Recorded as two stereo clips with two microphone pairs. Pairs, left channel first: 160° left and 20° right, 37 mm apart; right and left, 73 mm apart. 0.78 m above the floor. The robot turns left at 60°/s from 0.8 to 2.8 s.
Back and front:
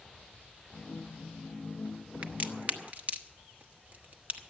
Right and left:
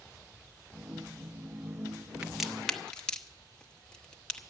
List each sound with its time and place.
2.2 s a crack: 10° left, 1.0 m; by 4.4 s 25° right, 1.0 m